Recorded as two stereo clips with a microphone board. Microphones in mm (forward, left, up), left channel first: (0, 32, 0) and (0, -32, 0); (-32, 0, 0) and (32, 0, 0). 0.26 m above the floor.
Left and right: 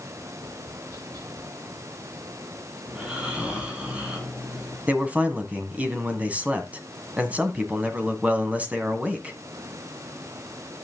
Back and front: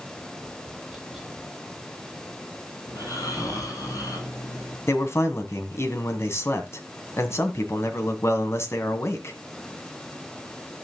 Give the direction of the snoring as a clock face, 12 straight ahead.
5 o'clock.